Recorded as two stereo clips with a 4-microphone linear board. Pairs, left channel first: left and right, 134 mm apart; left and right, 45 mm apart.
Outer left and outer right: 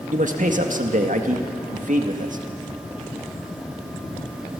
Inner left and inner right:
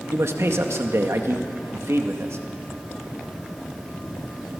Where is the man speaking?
65° right (ahead or behind), 1.9 m.